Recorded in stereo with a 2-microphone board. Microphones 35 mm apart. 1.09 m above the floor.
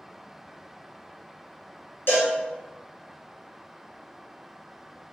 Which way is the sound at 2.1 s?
60° left (ahead or behind).